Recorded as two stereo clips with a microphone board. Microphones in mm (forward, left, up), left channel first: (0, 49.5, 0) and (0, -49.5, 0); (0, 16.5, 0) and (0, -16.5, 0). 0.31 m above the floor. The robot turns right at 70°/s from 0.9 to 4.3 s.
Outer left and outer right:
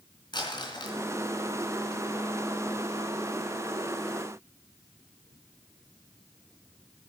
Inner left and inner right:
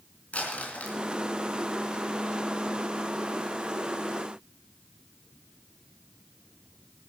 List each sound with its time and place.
0.3 s crumpling: 50° left (ahead or behind), 3.5 m; by 1.0 s 45° left (ahead or behind), 3.5 m